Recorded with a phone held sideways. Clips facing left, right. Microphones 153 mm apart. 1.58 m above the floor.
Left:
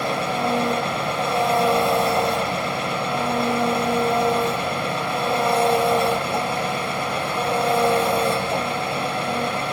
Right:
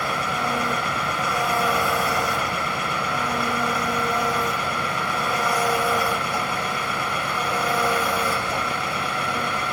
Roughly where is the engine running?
Left.